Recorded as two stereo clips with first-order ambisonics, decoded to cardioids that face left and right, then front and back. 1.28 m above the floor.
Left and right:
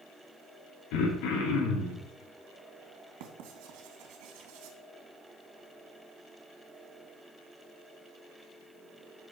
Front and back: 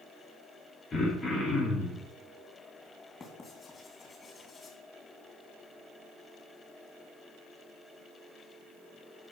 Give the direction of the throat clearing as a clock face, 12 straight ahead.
10 o'clock.